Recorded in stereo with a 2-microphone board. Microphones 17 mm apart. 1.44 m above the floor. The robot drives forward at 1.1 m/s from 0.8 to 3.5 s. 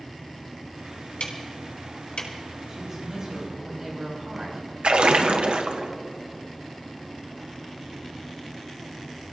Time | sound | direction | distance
1.2 | ticking | 70° left (ahead or behind) | 4 m
2.7 | a woman speaking | 25° right (ahead or behind) | 7.5 m
4.8 | a splash | 75° right (ahead or behind) | 1.1 m